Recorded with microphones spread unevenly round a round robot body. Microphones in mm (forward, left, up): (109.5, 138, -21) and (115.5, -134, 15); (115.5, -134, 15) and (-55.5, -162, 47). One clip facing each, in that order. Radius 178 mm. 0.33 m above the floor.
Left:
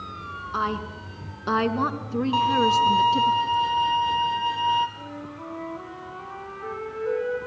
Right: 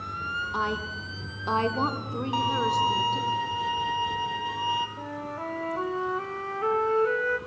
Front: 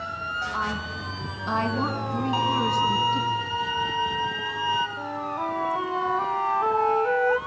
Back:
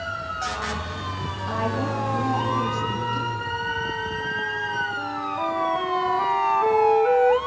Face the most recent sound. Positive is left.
turn(degrees=-90)